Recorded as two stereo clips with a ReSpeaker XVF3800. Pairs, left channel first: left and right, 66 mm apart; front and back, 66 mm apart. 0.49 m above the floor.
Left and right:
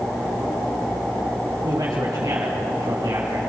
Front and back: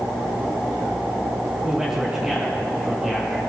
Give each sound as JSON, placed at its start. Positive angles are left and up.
{"t": 1.6, "sound": "a man speaking", "azimuth_deg": -100, "distance_m": 6.0}